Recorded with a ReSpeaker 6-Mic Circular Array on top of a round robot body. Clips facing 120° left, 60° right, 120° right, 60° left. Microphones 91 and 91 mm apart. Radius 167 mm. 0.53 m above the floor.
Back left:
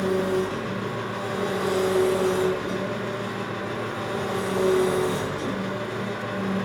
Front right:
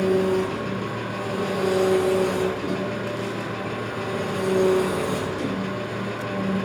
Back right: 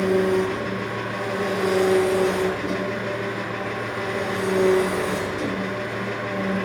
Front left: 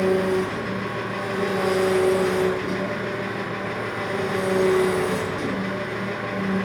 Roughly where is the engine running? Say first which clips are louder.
Front right 3 dB, back right 1 dB; ahead right.